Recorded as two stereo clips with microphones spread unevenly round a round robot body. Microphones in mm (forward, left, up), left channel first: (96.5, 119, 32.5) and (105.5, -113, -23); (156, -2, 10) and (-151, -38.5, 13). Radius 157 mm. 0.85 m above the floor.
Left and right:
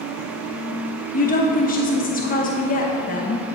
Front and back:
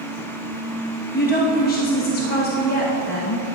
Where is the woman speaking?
40° left, 0.9 m.